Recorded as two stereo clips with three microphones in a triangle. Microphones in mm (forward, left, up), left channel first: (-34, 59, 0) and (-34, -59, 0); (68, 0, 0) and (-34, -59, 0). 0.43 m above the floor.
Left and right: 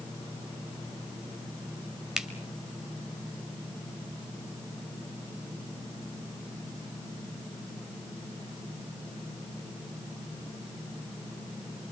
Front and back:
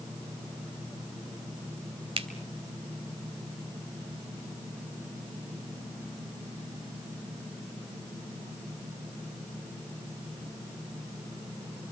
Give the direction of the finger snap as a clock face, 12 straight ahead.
6 o'clock.